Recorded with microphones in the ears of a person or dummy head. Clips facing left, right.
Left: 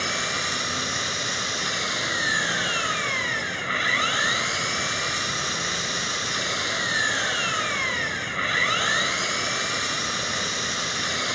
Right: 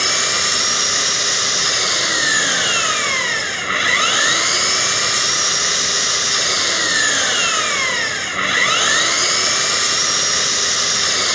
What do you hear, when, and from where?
0.0 s an engine running: 60° right (ahead or behind)